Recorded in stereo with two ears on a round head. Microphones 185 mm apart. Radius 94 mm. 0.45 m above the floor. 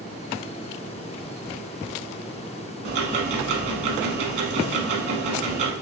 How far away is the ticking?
About 0.7 m.